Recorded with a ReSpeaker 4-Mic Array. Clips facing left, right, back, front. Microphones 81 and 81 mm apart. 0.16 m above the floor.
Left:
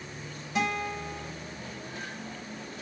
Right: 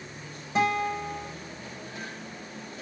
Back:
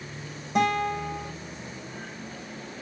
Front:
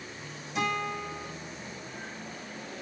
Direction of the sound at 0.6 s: 150° right.